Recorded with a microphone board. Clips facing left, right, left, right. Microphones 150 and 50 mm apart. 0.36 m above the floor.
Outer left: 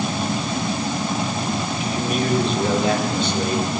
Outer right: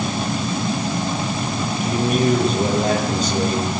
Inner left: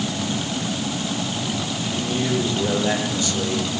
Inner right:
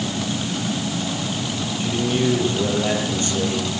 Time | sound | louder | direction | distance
1.8 | a man speaking | outer right 6 dB, inner right 6 dB | 45° right (ahead or behind) | 9.5 m